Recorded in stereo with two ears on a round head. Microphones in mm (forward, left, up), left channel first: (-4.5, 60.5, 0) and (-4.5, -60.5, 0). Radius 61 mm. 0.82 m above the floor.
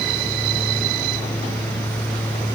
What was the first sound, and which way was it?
Only background noise.